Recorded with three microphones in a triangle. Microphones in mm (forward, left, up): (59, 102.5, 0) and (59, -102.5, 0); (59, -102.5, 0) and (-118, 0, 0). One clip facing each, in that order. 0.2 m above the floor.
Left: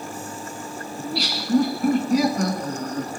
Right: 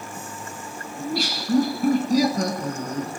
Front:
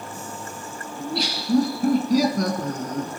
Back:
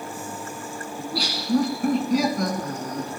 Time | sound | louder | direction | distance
1.0 | laughter | right 2 dB, front 3 dB | 95° right | 1.8 m